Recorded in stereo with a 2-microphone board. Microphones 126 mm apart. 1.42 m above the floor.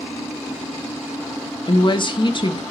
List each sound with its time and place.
1.7 s a woman speaking: 40° left (ahead or behind), 0.6 m